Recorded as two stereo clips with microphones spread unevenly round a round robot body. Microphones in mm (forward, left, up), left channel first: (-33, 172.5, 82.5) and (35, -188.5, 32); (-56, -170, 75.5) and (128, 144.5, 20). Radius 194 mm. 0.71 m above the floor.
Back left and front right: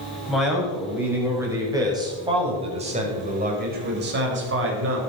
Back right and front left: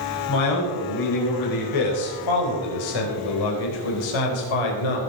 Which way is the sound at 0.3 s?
170° right.